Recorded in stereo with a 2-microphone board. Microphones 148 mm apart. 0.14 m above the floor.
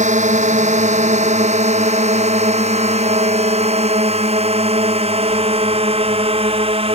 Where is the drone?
55° right (ahead or behind); by 7.0 s 40° right (ahead or behind).